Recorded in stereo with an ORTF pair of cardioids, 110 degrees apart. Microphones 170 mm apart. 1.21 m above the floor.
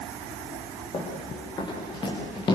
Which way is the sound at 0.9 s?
25° left.